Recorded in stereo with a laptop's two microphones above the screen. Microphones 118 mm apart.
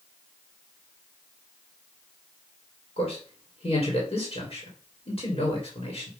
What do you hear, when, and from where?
3.0 s a man speaking: 55° left (ahead or behind), 2.5 m